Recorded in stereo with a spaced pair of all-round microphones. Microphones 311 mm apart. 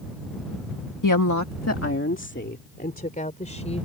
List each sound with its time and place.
1.0 s a woman speaking: 80° left; by 3.9 s 20° left (ahead or behind)